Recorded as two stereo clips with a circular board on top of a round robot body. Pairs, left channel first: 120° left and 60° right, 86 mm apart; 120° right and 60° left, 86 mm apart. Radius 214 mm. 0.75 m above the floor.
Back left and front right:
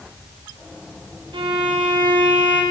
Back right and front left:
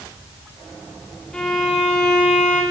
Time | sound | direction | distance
1.3 | a violin | 40° right | 5 m